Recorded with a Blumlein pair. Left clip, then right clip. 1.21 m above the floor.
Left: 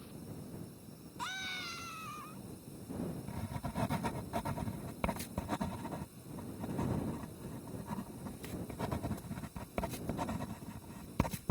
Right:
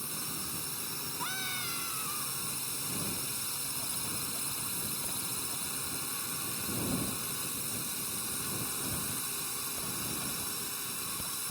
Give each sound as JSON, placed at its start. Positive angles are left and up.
{"t": 0.0, "sound": "a drone", "azimuth_deg": -50}
{"t": 1.2, "sound": "a scream", "azimuth_deg": -5}
{"t": 3.3, "sound": "writing", "azimuth_deg": 35}